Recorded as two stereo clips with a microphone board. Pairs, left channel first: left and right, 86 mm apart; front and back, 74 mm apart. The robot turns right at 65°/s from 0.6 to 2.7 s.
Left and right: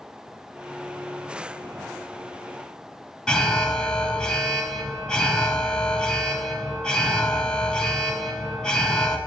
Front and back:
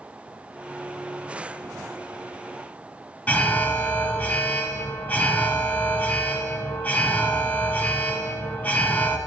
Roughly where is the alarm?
Ahead left.